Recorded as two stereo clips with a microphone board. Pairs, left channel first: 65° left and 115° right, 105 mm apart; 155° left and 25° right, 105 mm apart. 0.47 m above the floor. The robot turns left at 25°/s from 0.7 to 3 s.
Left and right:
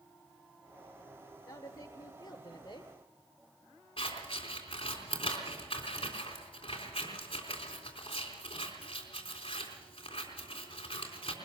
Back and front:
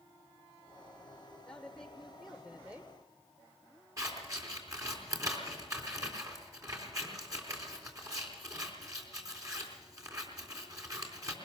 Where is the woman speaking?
85° left, 1.2 m; by 2.9 s 45° left, 1.2 m.